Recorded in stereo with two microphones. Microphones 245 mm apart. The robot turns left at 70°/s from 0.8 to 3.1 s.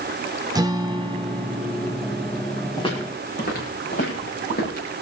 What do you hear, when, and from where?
0.6 s a guitar: 15° right (ahead or behind), 0.7 m; by 2.5 s 5° right (ahead or behind), 0.7 m
2.8 s footsteps: 15° left (ahead or behind), 5.5 m; by 4.9 s 40° left (ahead or behind), 8.5 m